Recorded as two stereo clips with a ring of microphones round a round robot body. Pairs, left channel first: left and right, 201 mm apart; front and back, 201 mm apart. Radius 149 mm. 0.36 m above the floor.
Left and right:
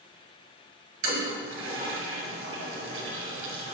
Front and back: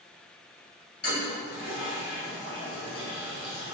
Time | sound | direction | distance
1.0 | a toilet flushing | 75° right | 2 m